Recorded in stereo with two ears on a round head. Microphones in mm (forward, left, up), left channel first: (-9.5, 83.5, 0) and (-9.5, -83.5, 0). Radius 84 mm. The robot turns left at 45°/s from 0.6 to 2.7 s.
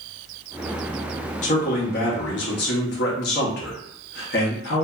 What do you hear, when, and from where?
1.4 s a man speaking: 130° left, 1.0 m; by 4.8 s 75° left, 1.0 m